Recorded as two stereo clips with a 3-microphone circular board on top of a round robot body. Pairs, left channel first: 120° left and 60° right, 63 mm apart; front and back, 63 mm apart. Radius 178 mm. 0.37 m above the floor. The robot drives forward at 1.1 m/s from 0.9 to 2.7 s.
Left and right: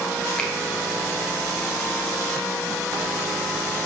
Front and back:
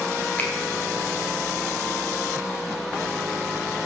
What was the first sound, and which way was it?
A finger snap, 50° left.